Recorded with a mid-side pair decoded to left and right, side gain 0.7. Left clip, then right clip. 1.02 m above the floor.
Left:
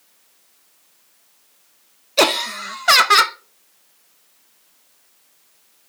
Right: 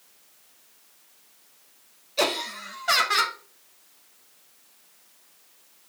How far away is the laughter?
About 0.7 m.